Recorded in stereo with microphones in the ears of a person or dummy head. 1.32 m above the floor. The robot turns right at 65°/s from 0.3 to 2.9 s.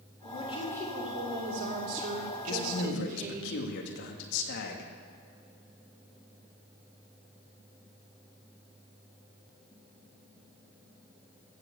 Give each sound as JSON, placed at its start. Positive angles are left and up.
{"t": 0.2, "sound": "a woman speaking", "azimuth_deg": 140, "distance_m": 3.5}
{"t": 2.5, "sound": "a man speaking", "side_deg": 85, "distance_m": 1.8}